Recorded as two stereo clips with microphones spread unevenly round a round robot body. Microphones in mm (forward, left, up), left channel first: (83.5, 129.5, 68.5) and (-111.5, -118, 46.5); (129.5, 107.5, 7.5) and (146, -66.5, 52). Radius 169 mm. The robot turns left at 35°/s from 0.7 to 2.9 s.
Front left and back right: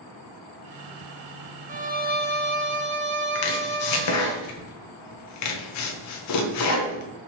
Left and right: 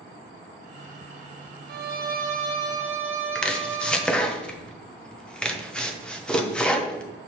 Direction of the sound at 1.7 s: 85° right.